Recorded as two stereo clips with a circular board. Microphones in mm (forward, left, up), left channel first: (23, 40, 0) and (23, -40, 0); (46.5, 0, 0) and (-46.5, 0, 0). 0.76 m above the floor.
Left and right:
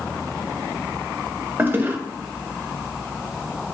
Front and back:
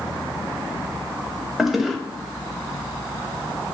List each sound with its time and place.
1.6 s a toilet flushing: 95° right, 0.6 m